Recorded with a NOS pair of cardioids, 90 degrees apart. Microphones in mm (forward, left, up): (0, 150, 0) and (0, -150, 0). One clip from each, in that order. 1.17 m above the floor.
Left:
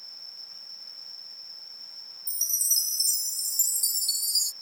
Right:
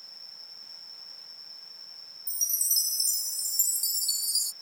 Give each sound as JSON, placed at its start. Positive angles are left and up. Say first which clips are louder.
{"t": 0.0, "sound": "an insect", "louder": "left 3 dB", "azimuth_deg": 20}
{"t": 2.3, "sound": "a chime", "louder": "left 2 dB", "azimuth_deg": 10}